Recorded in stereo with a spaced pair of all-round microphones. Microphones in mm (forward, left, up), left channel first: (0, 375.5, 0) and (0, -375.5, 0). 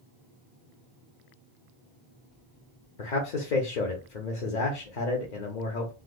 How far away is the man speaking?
About 0.8 m.